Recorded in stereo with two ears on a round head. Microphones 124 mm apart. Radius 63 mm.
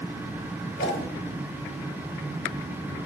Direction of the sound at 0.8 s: 70° left (ahead or behind).